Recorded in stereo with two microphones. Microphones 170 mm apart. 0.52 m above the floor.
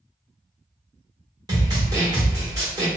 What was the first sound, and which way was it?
A snare drum, 25° right (ahead or behind).